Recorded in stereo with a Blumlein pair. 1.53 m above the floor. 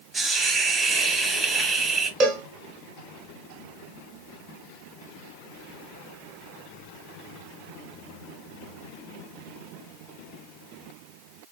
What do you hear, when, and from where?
0.1 s a hiss: 15° right, 1.1 m
2.2 s a cowbell: 35° right, 1.1 m